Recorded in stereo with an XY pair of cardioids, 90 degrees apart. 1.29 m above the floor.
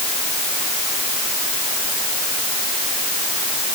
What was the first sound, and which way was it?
Only background noise.